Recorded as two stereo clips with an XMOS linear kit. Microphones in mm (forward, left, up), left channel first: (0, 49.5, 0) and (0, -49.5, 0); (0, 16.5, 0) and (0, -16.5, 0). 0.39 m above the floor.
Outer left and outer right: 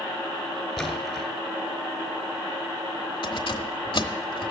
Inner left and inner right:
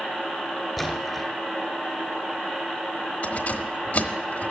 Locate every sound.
0.8 s a splash: centre (ahead or behind), 1.5 m
3.2 s keys jangling: 60° left (ahead or behind), 1.1 m